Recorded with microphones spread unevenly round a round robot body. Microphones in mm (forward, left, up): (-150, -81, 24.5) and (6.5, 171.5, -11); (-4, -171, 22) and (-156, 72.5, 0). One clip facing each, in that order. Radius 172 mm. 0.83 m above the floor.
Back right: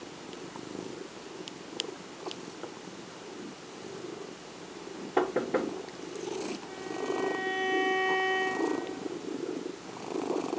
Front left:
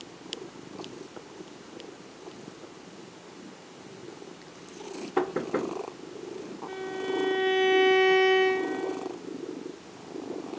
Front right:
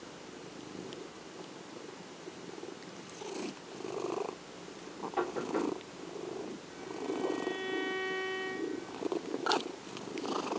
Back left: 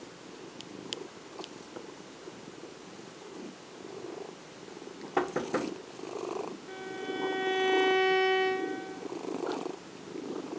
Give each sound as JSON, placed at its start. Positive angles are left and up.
{"t": 5.2, "sound": "knocking", "azimuth_deg": 130, "distance_m": 0.8}
{"t": 6.7, "sound": "a violin", "azimuth_deg": 100, "distance_m": 0.5}